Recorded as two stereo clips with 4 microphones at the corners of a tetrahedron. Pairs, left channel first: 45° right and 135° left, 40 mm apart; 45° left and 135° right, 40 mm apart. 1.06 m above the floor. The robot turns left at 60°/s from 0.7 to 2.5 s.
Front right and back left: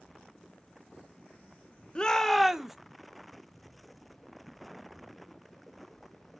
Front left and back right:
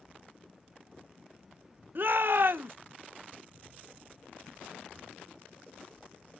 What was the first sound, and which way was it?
A shout, 110° right.